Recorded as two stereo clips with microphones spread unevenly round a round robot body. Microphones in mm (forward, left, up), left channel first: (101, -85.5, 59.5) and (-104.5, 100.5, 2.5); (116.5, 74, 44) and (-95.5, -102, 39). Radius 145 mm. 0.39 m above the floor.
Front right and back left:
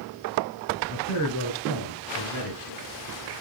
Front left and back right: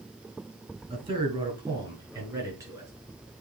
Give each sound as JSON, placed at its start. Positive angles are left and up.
{"t": 0.9, "sound": "a man speaking", "azimuth_deg": -70, "distance_m": 4.5}